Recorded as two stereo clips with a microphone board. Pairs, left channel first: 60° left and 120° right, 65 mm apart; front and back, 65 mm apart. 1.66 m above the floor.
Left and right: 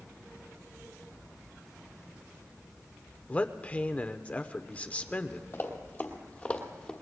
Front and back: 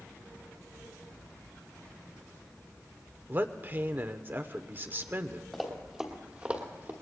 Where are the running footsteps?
85° left, 2.5 m; by 6.9 s 135° left, 2.5 m.